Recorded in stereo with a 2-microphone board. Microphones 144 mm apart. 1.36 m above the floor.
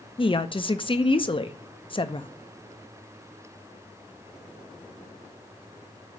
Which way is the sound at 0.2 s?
35° left (ahead or behind).